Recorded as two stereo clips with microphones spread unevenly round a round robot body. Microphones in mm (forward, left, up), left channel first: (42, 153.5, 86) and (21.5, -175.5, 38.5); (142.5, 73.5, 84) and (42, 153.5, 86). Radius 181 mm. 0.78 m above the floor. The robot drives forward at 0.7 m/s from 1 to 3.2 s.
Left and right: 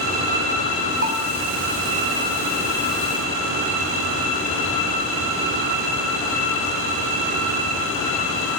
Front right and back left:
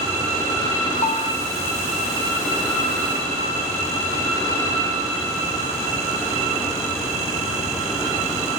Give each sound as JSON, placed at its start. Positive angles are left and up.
{"t": 1.0, "sound": "a bell", "azimuth_deg": -40, "distance_m": 2.5}